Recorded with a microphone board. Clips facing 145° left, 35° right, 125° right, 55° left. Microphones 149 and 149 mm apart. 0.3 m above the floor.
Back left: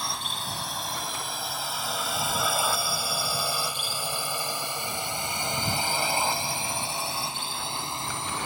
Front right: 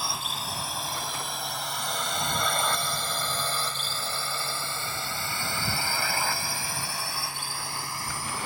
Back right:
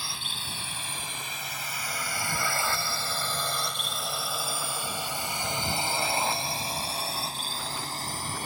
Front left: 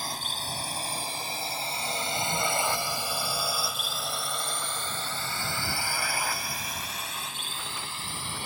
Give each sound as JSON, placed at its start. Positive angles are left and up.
{"t": 0.0, "sound": "a drone", "azimuth_deg": 50}